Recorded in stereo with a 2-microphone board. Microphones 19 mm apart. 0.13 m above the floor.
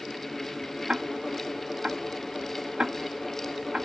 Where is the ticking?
65° right (ahead or behind).